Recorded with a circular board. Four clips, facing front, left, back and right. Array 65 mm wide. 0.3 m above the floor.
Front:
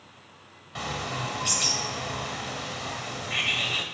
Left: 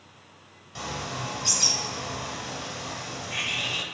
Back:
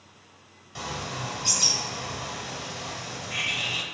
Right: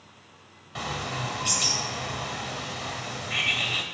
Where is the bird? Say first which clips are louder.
Right 2 dB, front 2 dB; 45° right, 0.8 m.